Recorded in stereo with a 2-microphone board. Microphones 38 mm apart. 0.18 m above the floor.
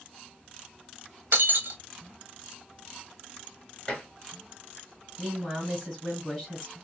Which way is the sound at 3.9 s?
20° left (ahead or behind).